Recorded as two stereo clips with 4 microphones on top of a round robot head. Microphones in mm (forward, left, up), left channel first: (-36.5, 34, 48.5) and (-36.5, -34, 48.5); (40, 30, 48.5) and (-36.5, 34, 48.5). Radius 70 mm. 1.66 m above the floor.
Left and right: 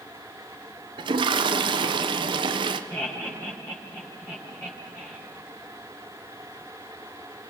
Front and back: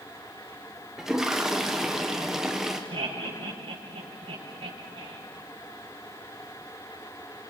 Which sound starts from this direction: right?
A toilet flushing, at 1.0 s.